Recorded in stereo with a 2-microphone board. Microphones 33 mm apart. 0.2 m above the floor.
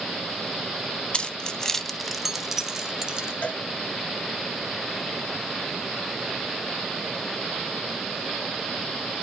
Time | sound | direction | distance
1.1 | keys jangling | 30° left (ahead or behind) | 0.8 m
3.4 | a cowbell | 45° left (ahead or behind) | 0.6 m